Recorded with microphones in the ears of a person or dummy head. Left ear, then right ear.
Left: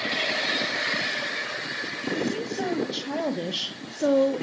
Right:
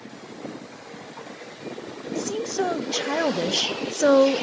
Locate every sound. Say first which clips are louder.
2.1 s a woman speaking: right 7 dB; 50° right (ahead or behind), 2.0 m